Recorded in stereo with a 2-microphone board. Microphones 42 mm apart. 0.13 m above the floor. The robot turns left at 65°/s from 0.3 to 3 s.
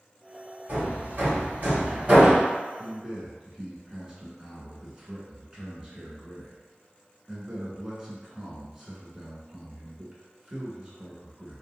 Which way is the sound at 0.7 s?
45° right (ahead or behind).